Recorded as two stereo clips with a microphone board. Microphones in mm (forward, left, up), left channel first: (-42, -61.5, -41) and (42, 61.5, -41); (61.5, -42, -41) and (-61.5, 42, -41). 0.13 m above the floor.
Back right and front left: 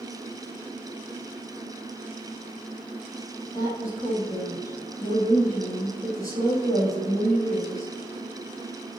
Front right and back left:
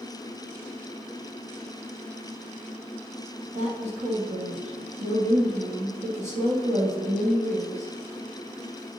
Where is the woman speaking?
170° left, 3 m.